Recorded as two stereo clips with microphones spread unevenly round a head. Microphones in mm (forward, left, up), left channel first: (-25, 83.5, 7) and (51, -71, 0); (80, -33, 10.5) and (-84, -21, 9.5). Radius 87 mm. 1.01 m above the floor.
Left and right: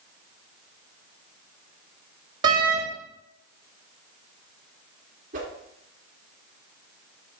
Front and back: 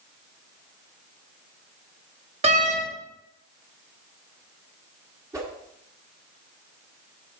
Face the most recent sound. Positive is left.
turn(degrees=-115)